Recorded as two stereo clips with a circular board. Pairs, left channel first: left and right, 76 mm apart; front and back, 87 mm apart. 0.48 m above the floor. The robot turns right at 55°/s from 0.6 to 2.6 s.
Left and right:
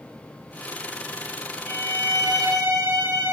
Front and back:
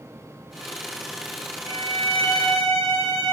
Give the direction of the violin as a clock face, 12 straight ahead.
11 o'clock.